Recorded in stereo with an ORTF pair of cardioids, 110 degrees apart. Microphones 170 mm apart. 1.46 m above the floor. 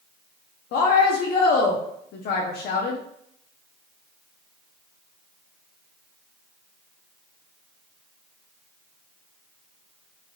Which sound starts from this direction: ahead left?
A woman speaking, at 0.7 s.